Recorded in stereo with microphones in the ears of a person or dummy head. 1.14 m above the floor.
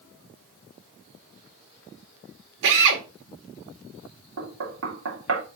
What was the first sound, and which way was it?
A drill, 70° right (ahead or behind).